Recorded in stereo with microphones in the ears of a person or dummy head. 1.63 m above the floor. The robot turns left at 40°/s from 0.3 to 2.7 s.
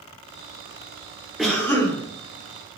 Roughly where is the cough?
Centre.